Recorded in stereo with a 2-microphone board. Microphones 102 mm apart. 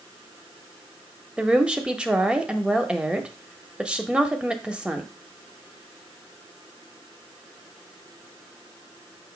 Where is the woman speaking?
10° right (ahead or behind), 1.0 m.